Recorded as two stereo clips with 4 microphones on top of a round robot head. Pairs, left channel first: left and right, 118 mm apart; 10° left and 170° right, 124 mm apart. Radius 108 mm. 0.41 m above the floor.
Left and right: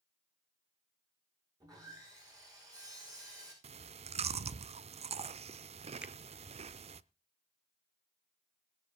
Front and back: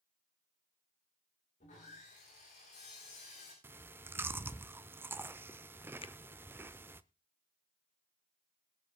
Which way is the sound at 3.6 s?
100° right.